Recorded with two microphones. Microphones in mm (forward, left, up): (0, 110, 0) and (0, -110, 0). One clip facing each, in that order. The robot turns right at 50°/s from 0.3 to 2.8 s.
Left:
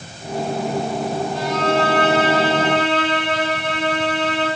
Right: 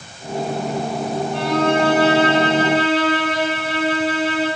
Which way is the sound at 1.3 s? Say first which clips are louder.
Right 3 dB; 80° right.